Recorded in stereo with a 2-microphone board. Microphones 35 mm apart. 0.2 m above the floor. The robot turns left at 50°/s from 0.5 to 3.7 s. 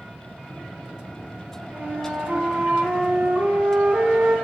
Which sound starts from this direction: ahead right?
A flute, at 1.7 s.